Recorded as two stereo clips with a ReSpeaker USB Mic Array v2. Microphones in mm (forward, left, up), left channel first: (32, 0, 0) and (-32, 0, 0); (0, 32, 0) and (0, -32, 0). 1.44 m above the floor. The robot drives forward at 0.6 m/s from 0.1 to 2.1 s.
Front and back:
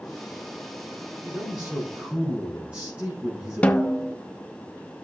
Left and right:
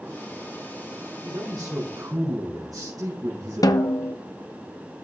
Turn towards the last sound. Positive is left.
turn(degrees=70)